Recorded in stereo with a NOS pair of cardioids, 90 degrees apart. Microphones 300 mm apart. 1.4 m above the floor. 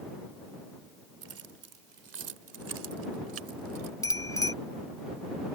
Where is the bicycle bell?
10° left.